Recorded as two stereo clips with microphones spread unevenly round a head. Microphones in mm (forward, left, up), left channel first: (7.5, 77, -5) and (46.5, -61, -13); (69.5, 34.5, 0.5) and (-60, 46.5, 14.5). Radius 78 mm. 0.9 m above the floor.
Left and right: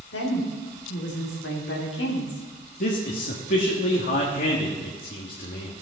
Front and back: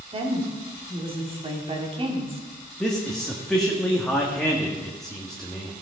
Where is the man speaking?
80° left, 1.4 m.